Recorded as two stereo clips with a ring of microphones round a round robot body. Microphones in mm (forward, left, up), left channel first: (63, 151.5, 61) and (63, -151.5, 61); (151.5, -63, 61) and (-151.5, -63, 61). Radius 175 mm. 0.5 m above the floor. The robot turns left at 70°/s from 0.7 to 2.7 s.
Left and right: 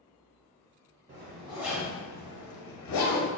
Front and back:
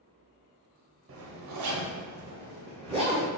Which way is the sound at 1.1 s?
135° right.